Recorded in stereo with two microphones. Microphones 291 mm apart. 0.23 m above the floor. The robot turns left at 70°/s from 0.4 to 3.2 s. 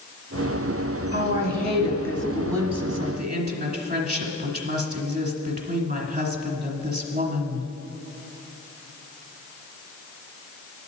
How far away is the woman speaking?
About 1.9 m.